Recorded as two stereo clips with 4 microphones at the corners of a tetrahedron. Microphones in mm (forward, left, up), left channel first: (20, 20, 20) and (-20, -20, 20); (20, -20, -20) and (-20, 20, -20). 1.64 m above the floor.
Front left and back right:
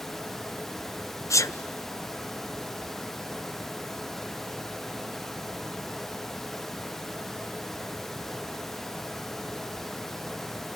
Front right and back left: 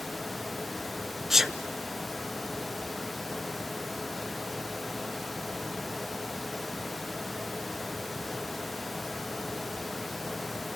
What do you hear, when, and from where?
1.3 s a sneeze: 50° left, 0.8 m